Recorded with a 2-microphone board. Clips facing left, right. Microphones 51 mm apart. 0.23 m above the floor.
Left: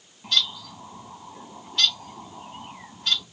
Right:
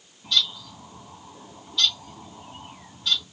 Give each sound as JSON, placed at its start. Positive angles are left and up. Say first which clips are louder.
{"t": 0.2, "sound": "a bird", "louder": "even", "side_deg": 45, "distance_m": 2.0}